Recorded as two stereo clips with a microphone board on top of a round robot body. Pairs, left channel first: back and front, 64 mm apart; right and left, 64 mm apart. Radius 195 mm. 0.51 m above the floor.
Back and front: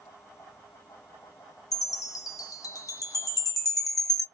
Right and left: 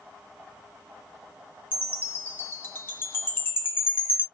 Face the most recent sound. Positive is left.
turn(degrees=-145)